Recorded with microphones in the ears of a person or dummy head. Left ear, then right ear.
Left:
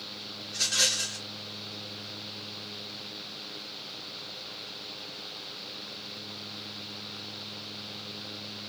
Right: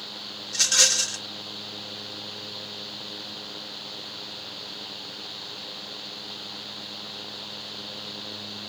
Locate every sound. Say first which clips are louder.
0.5 s a rattle: right 6 dB; 30° right (ahead or behind), 0.5 m